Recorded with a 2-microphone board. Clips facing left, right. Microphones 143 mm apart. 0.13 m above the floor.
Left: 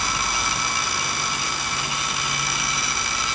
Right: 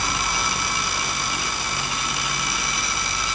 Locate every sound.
Only background noise.